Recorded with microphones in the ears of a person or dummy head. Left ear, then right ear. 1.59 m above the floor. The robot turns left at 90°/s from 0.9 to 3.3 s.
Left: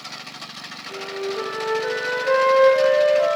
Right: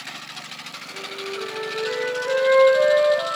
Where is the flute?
155° left, 2.5 m; by 3.4 s 60° right, 2.5 m.